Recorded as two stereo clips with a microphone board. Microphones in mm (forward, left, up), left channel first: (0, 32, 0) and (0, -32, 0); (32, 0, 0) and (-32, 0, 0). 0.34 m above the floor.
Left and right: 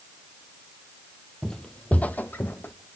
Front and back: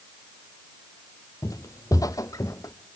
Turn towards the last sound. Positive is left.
turn(degrees=30)